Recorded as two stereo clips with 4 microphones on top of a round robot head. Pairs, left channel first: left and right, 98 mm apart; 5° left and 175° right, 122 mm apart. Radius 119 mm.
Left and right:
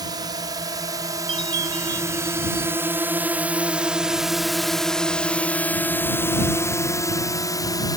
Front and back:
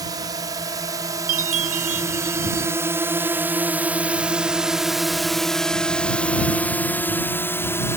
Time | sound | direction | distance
0.0 | a drone | 125° right | ?
1.3 | a chime | 150° right | ?